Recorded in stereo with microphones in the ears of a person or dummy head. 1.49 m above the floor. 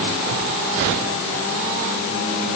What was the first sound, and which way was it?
Only background noise.